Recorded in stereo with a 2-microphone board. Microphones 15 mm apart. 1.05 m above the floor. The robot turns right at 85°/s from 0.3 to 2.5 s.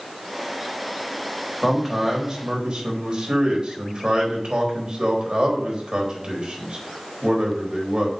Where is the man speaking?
175° right, 4 m; by 8.1 s 100° right, 4 m.